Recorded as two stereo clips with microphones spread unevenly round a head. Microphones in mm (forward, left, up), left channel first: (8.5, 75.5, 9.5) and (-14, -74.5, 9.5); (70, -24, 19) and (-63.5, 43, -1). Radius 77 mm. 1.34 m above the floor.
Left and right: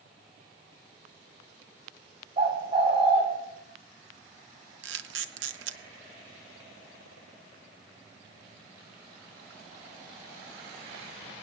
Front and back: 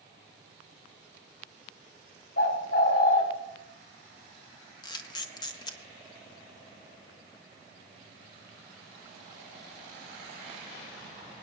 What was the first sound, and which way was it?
A bird, 45° right.